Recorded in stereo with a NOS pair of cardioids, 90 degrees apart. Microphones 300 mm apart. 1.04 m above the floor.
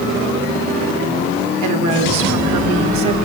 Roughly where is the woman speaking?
Right.